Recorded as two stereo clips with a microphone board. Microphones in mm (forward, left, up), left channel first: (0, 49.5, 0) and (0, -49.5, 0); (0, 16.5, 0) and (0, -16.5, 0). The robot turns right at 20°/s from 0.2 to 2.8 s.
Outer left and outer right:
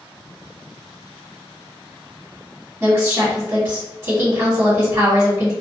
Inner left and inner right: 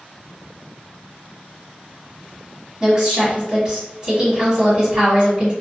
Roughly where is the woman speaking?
Right.